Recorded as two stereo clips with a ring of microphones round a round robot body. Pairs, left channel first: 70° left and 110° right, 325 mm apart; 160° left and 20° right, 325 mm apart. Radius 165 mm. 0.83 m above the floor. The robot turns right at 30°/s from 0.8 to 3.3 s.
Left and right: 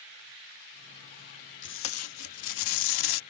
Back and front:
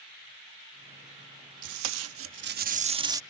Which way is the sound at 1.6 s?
10° left.